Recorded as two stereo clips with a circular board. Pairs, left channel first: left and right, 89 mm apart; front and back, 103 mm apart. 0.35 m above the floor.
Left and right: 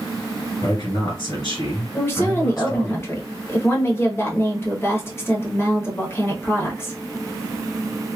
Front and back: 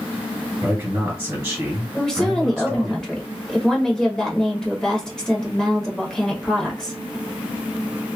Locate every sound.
0.6 s a man speaking: 120° left, 2.0 m
1.9 s a woman speaking: 80° left, 1.1 m